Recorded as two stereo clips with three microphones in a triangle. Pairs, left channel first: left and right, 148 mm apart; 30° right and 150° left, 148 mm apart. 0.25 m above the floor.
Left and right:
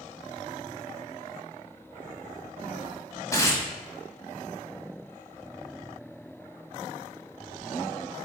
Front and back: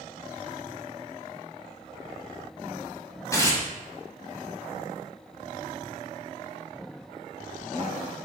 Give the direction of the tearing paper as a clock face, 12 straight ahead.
11 o'clock.